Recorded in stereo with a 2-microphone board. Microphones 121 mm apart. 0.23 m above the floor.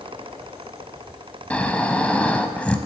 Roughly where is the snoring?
Centre.